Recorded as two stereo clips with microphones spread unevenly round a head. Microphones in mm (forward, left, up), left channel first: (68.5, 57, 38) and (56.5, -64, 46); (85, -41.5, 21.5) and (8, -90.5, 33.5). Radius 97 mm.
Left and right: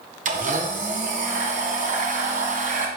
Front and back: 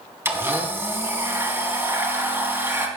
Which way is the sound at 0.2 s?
85° right.